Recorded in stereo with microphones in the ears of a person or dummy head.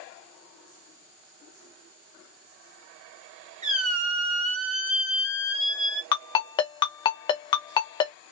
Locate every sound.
3.6 s a squeak: 35° right (ahead or behind), 0.9 m
6.1 s a ringtone: 25° left (ahead or behind), 0.7 m